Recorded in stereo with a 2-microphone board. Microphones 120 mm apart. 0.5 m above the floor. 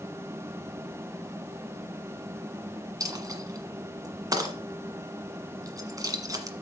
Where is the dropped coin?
30° right (ahead or behind), 1.5 m.